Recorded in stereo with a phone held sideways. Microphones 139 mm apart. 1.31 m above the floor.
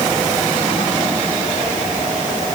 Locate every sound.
Only background noise.